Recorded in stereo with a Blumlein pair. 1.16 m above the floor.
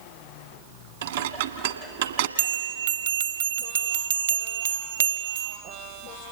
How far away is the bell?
About 1.3 m.